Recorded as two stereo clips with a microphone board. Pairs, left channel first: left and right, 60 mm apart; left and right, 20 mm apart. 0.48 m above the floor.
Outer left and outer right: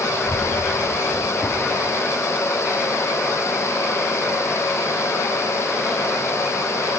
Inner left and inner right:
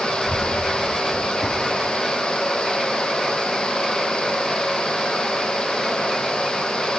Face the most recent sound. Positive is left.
turn(degrees=5)  # may be behind; listen again after turning